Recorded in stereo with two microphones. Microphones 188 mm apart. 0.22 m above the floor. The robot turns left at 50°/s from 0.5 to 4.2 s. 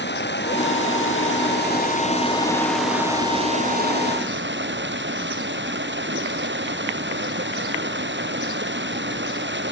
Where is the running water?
115° left; by 9.7 s 70° right.